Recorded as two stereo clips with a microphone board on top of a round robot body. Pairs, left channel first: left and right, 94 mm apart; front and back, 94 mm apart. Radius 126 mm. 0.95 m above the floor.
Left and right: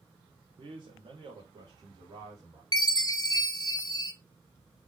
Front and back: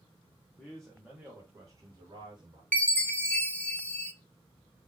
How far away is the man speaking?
About 1.1 m.